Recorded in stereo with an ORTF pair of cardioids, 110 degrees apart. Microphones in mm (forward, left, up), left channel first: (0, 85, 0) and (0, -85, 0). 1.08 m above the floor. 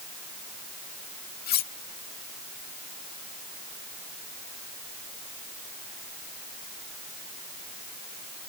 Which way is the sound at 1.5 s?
65° left.